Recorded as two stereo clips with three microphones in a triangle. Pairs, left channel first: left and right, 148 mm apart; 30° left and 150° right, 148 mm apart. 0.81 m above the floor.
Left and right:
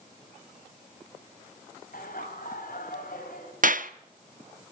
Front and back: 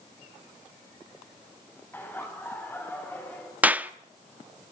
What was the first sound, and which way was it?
Laughter, 105° left.